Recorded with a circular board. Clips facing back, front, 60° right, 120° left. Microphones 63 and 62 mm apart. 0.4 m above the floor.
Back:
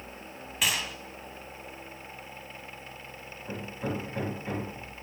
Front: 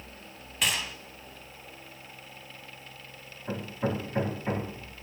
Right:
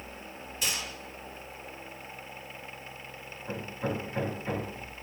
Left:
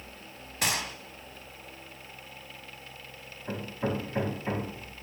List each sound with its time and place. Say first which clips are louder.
0.6 s a gunshot: even, left 4 dB; 95° left, 0.7 m
3.5 s hammering: front 3 dB, left 2 dB; 55° left, 3 m